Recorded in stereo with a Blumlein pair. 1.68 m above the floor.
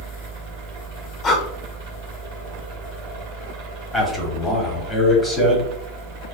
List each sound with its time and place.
0.0 s a fan: 45° right, 1.4 m
1.2 s breathing: 20° left, 0.8 m
3.9 s a man speaking: straight ahead, 1.5 m